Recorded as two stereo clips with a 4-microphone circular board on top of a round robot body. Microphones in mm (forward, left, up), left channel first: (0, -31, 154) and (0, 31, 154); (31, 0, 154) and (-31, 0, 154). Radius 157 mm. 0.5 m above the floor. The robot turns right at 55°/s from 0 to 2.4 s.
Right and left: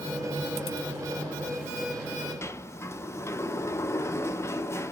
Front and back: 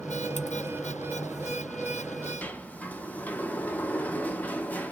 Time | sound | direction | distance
2.4 | a sliding door | 60° right | 0.7 m